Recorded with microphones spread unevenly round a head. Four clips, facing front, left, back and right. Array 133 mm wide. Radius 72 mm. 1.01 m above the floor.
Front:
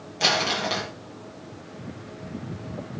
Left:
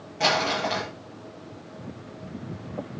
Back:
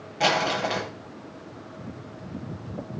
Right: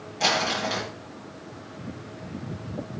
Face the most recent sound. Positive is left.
turn(degrees=150)